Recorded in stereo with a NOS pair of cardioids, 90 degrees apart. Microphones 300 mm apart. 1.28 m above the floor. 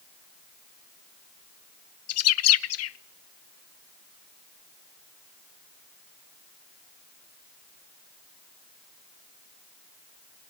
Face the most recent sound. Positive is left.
turn(degrees=55)